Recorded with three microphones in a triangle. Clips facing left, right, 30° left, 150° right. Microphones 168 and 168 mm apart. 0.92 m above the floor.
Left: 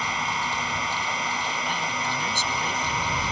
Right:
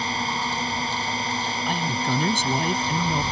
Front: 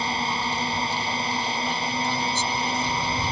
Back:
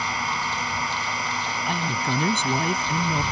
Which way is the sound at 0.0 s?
30° right.